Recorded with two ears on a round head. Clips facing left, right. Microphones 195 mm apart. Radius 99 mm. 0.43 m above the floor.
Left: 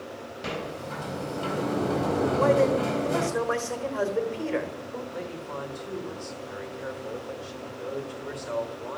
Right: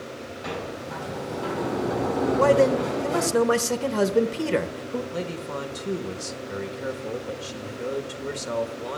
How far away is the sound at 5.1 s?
About 1.2 m.